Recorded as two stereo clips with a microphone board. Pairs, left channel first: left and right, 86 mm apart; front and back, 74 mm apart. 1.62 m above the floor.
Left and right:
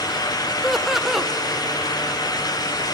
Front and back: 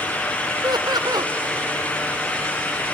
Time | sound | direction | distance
0.6 | laughter | straight behind | 1.0 m